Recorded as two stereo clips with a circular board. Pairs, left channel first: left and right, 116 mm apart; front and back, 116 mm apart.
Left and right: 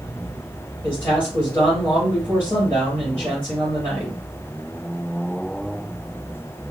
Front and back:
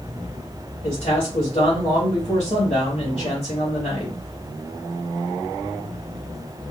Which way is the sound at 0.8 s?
15° left.